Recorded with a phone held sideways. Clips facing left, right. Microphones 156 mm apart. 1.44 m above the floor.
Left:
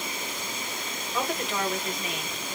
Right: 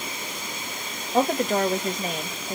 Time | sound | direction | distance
1.1 | a woman speaking | 45° right (ahead or behind) | 1.0 m